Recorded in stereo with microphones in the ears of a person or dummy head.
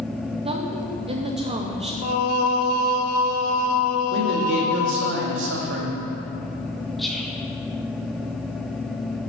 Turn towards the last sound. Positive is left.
turn(degrees=0)  # may be behind; listen again after turning